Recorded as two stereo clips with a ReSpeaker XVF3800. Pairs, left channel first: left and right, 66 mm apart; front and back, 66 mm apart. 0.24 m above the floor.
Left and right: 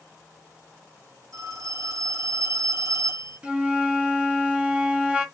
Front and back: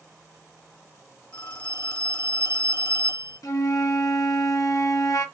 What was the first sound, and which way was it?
A phone ringing, 60° right.